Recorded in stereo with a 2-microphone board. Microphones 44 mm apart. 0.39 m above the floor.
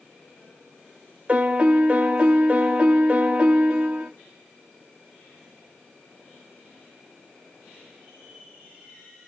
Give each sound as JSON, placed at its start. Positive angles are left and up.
{"t": 1.3, "sound": "a piano", "side_deg": -35, "distance_m": 0.8}